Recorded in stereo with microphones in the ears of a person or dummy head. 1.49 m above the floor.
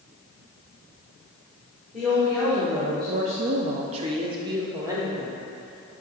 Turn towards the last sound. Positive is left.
turn(degrees=-15)  # may be behind; listen again after turning